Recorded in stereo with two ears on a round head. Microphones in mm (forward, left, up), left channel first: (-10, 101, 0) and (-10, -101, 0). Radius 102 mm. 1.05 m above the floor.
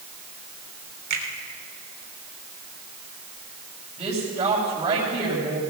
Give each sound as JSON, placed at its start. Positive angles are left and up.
{"t": 1.1, "sound": "a finger snap", "side_deg": -45, "distance_m": 3.5}
{"t": 4.0, "sound": "a woman speaking", "side_deg": -20, "distance_m": 7.5}